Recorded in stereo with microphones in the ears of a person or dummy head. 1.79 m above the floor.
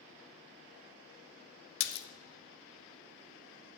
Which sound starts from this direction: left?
A splash, at 1.8 s.